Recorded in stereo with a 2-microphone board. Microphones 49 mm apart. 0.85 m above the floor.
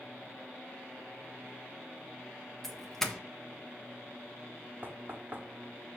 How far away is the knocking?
About 1.4 m.